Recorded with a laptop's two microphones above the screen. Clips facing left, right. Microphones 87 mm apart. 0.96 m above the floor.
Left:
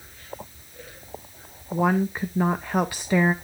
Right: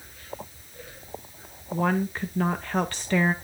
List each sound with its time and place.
1.7 s a woman speaking: 10° left (ahead or behind), 0.5 m